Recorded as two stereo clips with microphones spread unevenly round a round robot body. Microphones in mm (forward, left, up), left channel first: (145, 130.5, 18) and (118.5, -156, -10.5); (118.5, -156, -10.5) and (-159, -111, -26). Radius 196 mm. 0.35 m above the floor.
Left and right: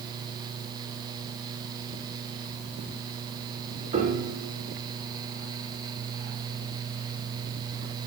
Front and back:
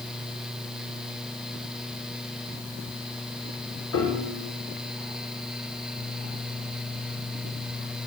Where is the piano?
30° right, 5.5 m.